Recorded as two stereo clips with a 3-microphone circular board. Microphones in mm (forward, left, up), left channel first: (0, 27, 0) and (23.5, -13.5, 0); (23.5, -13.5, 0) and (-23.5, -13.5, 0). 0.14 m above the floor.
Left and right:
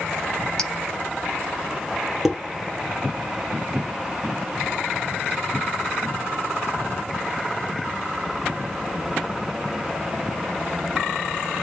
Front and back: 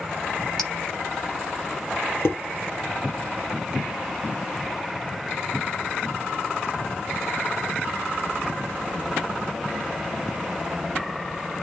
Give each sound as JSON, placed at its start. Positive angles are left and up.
{"t": 0.6, "sound": "a clink", "azimuth_deg": 70, "distance_m": 0.8}
{"t": 2.2, "sound": "dishes clattering", "azimuth_deg": 25, "distance_m": 2.0}